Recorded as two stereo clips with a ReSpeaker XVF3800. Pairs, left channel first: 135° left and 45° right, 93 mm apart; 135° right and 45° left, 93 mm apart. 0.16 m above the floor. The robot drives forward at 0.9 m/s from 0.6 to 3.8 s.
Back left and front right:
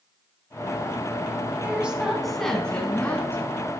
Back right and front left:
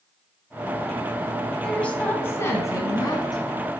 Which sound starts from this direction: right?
A woman speaking, at 1.6 s.